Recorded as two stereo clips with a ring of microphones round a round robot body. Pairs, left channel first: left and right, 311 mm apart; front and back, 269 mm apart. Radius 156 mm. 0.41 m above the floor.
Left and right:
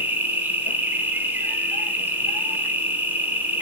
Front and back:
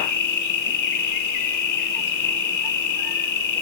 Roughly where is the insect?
Ahead.